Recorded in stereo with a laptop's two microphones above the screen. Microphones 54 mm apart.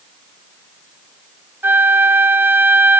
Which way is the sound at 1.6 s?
45° right (ahead or behind).